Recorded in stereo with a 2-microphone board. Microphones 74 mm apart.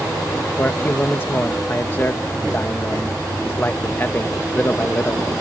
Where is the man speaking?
30° left (ahead or behind).